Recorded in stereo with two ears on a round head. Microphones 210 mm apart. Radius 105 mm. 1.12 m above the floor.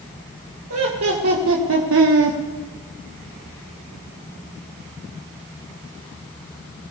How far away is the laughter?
About 1.7 m.